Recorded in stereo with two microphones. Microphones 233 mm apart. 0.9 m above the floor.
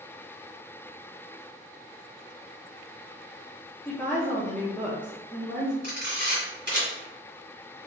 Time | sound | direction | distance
3.9 | a woman speaking | 5° left (ahead or behind) | 0.6 m
5.8 | a camera shutter | 50° right (ahead or behind) | 1.6 m